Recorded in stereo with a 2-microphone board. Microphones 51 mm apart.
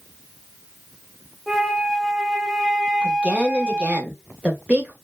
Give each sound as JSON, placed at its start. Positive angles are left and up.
{"t": 1.5, "sound": "a flute", "side_deg": -5, "distance_m": 0.7}
{"t": 3.0, "sound": "a woman speaking", "side_deg": -25, "distance_m": 0.9}